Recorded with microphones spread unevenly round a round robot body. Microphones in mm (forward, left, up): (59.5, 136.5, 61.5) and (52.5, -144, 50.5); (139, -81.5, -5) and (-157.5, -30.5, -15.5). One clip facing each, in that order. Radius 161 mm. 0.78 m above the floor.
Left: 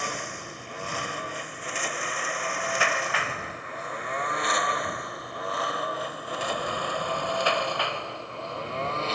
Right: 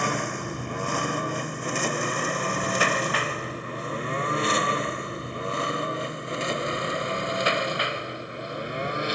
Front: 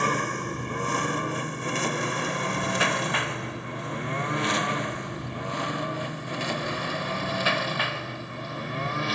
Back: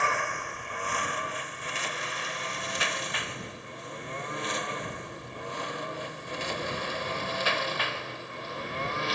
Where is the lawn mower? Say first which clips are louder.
Right 8 dB, front 7 dB; 60° right; by 9.2 s 15° right.